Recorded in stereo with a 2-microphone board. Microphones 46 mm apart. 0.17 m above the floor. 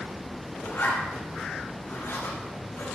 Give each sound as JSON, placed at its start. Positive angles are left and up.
{"t": 0.6, "sound": "a zipper", "side_deg": 55, "distance_m": 5.0}